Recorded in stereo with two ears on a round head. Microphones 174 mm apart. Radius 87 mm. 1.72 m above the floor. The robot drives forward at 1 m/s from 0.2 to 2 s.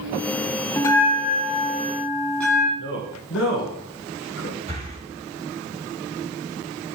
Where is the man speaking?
60° left (ahead or behind), 1.7 m.